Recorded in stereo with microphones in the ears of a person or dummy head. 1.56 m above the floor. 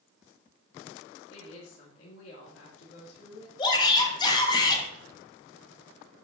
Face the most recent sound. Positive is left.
turn(degrees=25)  # may be behind; listen again after turning